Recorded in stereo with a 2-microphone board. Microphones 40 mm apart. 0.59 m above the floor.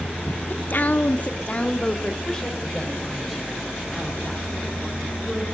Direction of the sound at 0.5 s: 50° left (ahead or behind).